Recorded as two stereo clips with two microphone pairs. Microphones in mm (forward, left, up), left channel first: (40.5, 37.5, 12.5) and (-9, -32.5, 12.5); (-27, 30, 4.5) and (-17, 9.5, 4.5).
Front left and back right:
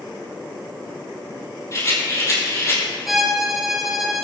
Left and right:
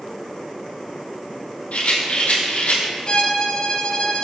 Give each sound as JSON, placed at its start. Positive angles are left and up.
{"t": 1.7, "sound": "a rattle", "azimuth_deg": 105, "distance_m": 4.0}
{"t": 3.0, "sound": "a violin", "azimuth_deg": 145, "distance_m": 1.5}